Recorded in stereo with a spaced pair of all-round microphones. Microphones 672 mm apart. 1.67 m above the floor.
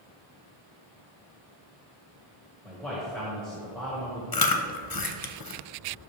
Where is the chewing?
35° left (ahead or behind), 0.7 m.